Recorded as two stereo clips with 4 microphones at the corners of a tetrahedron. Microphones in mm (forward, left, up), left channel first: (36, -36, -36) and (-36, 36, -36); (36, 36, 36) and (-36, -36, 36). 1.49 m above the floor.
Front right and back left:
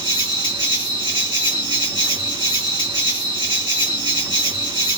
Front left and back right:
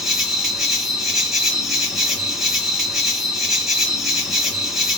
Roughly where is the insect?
Behind left.